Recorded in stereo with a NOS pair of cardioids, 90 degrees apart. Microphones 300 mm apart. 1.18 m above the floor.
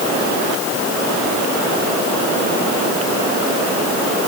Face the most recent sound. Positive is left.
No sound to turn to.